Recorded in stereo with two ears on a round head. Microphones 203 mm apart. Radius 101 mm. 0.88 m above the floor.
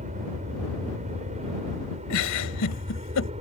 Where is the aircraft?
35° right (ahead or behind); by 3.4 s 30° right (ahead or behind).